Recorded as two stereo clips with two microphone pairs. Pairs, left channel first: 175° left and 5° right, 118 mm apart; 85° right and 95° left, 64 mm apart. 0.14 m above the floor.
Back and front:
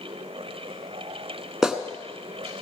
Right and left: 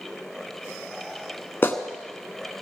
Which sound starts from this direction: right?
A clap, at 1.6 s.